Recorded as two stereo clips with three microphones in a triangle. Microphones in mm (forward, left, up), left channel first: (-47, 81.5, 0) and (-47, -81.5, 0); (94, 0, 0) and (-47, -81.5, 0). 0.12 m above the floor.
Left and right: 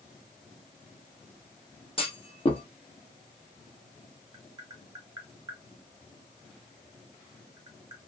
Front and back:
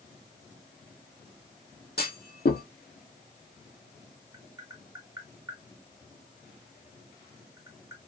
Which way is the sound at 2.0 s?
40° left.